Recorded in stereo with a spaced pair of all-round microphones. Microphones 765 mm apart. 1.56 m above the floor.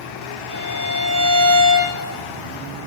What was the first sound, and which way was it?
A violin, 75° right (ahead or behind).